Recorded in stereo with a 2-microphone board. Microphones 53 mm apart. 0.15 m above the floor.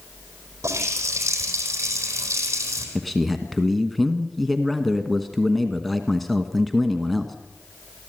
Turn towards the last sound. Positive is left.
turn(degrees=0)  # may be behind; listen again after turning